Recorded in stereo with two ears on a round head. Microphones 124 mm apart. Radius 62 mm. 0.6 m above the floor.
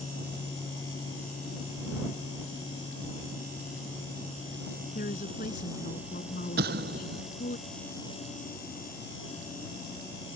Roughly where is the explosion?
Right.